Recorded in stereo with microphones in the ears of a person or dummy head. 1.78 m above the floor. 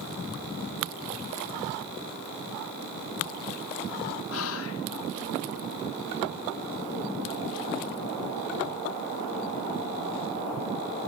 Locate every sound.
4.3 s whispering: 85° left, 2.5 m